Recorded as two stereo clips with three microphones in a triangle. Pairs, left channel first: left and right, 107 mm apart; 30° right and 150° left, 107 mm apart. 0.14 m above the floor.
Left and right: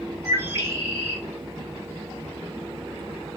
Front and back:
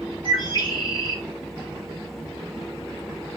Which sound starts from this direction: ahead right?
A bird, at 0.2 s.